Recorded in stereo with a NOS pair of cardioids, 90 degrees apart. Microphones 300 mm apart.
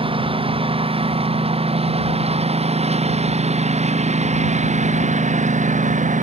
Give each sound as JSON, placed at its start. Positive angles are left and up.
{"t": 0.0, "sound": "a lawn mower", "azimuth_deg": -20}